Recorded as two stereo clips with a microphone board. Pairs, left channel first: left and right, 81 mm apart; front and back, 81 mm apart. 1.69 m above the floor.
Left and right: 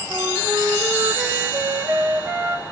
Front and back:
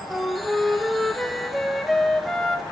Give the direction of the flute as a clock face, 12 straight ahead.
3 o'clock.